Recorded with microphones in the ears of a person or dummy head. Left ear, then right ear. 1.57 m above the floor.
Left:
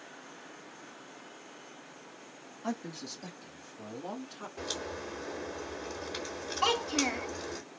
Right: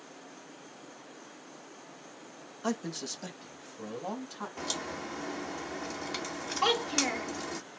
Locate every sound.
2.6 s a man speaking: 80° right, 0.8 m; by 4.5 s 50° right (ahead or behind), 2.5 m
4.6 s a crack: 60° right (ahead or behind), 1.5 m
6.6 s a child speaking: 10° right (ahead or behind), 0.8 m